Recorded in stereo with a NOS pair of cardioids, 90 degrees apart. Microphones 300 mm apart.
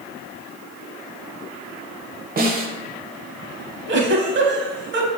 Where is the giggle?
40° right, 0.6 m.